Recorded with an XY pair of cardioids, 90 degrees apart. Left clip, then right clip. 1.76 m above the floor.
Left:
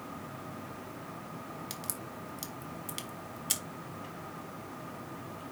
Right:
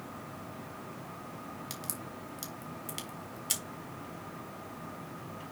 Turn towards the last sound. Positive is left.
turn(degrees=0)